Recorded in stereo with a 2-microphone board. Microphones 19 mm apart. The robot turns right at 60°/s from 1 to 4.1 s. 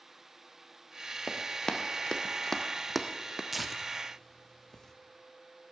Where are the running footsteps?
15° left (ahead or behind), 1.5 m; by 3.4 s 25° right (ahead or behind), 0.8 m.